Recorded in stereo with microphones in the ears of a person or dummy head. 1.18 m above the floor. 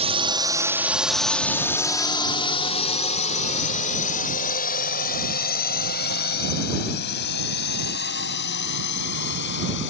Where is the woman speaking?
No woman speaking in this recording.